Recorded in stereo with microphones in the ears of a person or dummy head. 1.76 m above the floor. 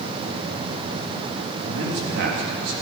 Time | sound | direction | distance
1.6 | a man speaking | 55° right (ahead or behind) | 3.5 m